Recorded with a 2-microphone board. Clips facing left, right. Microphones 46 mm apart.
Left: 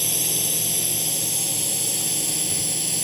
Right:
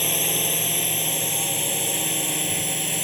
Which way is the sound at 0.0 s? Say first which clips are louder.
Right 4 dB; 35° right (ahead or behind).